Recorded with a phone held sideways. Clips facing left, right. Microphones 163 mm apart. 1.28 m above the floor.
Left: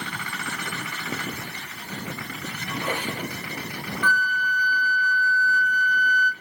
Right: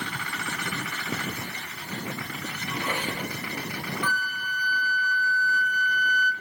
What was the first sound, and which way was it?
A squeak, 40° left (ahead or behind).